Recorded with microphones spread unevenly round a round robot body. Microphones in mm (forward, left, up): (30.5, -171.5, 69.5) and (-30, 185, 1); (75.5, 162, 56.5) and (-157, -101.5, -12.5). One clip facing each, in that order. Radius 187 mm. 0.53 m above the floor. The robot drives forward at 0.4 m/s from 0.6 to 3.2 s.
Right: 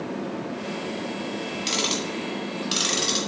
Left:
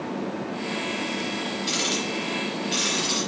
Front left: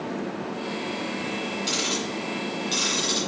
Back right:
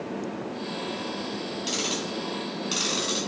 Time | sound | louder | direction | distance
1.7 | ticking | even, front left 1 dB | 50° right | 2.5 m